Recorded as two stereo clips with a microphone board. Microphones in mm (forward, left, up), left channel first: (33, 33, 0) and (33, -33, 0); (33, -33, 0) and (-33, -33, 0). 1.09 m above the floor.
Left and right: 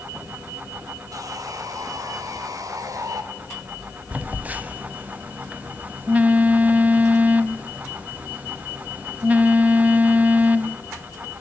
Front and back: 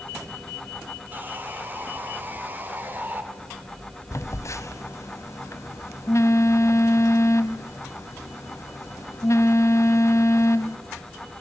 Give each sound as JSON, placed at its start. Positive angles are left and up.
{"t": 1.1, "sound": "sawing", "azimuth_deg": -120, "distance_m": 2.5}
{"t": 4.1, "sound": "a phone buzzing", "azimuth_deg": -25, "distance_m": 1.4}